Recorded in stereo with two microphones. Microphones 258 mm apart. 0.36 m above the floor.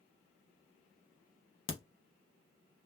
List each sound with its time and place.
1.7 s a crack: 55° left (ahead or behind), 0.6 m